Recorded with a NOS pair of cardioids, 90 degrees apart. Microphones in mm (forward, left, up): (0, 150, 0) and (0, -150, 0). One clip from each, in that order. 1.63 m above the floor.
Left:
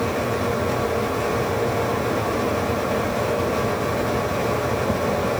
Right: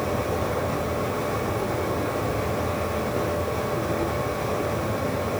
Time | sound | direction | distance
0.0 | a fan | 65° left | 4 m